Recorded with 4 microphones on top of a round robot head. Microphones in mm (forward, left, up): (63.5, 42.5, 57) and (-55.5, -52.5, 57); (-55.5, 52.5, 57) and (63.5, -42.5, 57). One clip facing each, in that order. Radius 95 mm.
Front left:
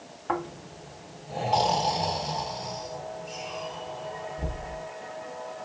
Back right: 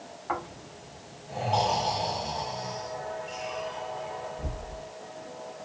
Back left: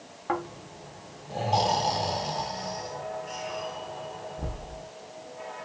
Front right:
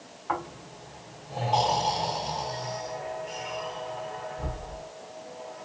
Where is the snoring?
90° left, 1.2 m.